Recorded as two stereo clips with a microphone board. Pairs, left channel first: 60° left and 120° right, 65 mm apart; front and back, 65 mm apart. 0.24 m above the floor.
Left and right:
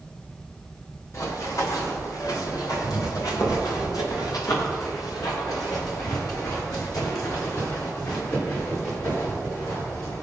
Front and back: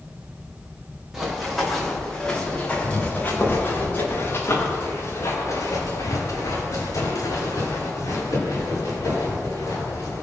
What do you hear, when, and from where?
1.1 s running footsteps: 95° left, 5 m; by 10.2 s 25° left, 14 m